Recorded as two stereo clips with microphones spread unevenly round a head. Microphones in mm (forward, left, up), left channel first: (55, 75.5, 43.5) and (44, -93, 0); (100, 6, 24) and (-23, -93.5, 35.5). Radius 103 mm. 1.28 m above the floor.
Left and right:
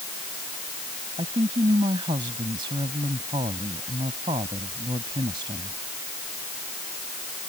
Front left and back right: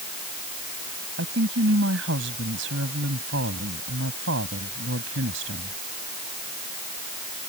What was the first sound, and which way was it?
A woman speaking, 165° right.